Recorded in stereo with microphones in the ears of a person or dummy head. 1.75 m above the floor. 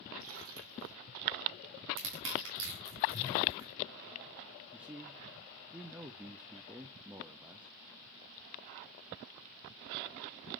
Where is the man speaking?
5° right (ahead or behind), 0.6 m.